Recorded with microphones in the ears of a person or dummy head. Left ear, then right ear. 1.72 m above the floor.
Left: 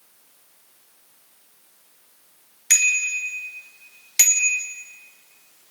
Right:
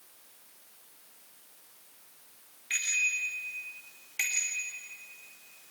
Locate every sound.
2.7 s a bicycle bell: 70° left (ahead or behind), 2 m; by 4.7 s 50° left (ahead or behind), 2.5 m